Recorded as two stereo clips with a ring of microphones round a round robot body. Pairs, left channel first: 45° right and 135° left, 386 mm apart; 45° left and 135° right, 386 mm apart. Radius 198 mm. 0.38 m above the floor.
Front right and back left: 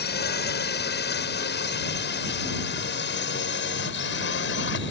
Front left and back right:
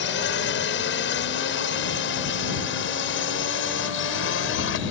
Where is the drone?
5° left; by 4.9 s straight ahead.